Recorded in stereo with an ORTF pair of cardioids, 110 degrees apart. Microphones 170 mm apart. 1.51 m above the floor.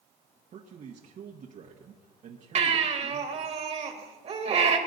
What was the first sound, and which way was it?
A man speaking, 50° right.